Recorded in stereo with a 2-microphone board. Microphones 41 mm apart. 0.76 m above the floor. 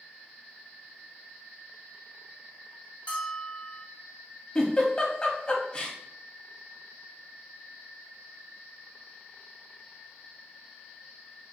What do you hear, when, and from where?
3.1 s a bell: 30° left (ahead or behind), 1.1 m
4.5 s a giggle: 20° left (ahead or behind), 0.8 m